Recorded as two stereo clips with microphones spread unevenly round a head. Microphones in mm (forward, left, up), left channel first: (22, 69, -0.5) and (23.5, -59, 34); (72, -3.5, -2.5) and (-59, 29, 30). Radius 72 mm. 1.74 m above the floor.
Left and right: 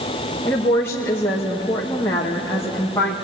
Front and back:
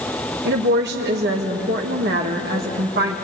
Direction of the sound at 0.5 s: 170° left.